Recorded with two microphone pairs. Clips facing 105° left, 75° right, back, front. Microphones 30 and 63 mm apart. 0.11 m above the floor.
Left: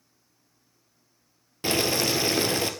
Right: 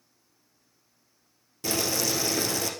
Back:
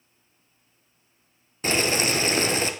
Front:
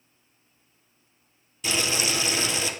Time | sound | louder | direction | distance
1.6 | boiling | left 3 dB, back 4 dB | 135° left | 0.9 m